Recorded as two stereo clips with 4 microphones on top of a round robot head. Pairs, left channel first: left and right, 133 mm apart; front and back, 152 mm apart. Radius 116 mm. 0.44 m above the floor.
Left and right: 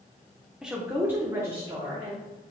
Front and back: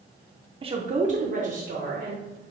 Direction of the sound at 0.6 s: 175° right.